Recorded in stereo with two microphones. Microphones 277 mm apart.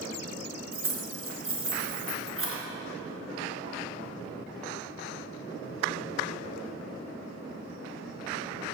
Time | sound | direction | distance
0.7 | keys jangling | 50° right (ahead or behind) | 1.3 m